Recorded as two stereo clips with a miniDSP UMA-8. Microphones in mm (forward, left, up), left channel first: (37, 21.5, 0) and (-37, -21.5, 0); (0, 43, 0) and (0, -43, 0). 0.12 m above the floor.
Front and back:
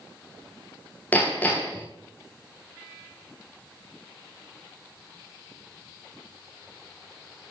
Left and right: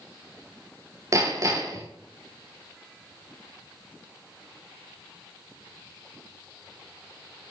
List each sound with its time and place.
1.1 s hammering: 40° right, 6.5 m